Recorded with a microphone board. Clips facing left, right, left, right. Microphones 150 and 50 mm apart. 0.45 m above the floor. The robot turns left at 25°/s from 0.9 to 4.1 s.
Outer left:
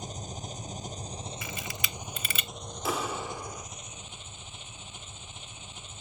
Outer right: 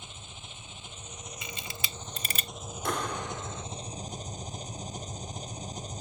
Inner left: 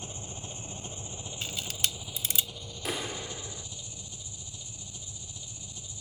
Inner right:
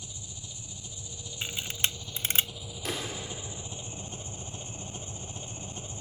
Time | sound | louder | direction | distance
0.0 | an engine running | outer left 9 dB, inner left 5 dB | 40° left | ?
1.4 | a camera shutter | outer left 3 dB, inner right 2 dB | 20° right (ahead or behind) | ?
2.9 | a clap | outer left 1 dB, inner left 1 dB | 5° left (ahead or behind) | ?